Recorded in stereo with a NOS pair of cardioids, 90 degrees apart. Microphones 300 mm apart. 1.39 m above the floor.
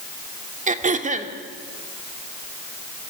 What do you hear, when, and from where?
0.7 s throat clearing: 25° right, 2 m